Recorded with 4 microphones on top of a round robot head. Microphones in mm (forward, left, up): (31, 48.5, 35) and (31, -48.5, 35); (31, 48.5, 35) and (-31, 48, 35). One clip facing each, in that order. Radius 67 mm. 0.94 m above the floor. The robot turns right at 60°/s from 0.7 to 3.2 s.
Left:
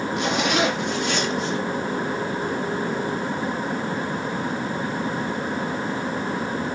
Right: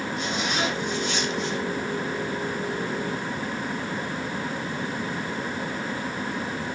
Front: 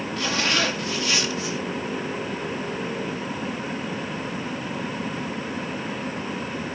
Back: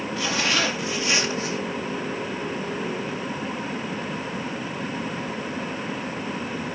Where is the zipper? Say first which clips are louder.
Left 7 dB, even; 95° left, 2.0 m; by 1.6 s 150° left, 2.0 m.